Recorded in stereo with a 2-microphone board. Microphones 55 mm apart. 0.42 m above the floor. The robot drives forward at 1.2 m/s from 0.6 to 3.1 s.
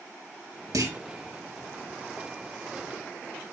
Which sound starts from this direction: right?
A clunk, at 0.7 s.